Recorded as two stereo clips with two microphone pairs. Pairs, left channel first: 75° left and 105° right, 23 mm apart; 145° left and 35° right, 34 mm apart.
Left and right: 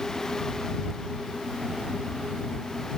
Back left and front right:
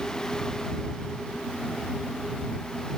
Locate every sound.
Only background noise.